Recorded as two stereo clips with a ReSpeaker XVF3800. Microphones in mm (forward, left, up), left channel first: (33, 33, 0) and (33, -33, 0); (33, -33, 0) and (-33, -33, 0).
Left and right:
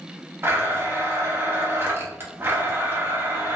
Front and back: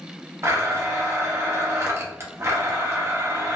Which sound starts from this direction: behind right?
A blender, at 0.4 s.